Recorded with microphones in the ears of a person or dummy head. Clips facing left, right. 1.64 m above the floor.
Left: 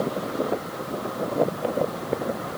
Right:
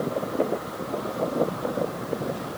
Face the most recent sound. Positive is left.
No sound to turn to.